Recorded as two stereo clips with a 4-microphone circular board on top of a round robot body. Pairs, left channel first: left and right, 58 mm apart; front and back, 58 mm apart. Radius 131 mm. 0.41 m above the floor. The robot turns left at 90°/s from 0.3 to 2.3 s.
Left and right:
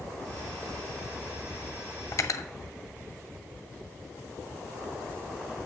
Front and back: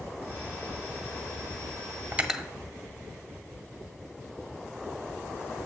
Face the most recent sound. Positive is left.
turn(degrees=105)